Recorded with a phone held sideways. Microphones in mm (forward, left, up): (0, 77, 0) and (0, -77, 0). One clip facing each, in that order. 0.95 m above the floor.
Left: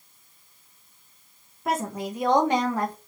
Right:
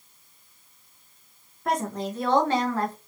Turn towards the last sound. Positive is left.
turn(degrees=15)  # may be behind; listen again after turning